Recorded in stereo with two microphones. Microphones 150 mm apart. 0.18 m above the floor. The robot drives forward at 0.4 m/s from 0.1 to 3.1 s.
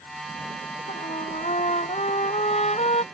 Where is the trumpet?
45° left (ahead or behind).